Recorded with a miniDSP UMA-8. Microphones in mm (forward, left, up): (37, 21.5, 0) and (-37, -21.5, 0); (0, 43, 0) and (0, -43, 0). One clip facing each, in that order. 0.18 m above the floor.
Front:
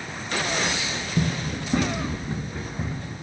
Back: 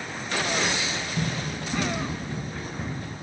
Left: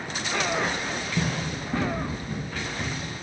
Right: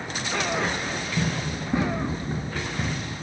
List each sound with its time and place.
1.2 s running footsteps: 15° left, 1.1 m; by 3.1 s 50° right, 2.5 m